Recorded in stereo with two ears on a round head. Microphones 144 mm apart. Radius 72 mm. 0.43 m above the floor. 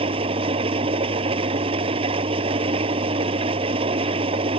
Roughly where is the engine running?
Right.